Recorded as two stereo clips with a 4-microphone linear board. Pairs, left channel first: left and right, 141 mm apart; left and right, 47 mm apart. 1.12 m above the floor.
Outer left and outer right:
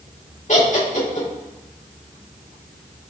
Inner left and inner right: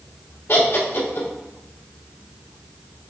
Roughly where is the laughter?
Left.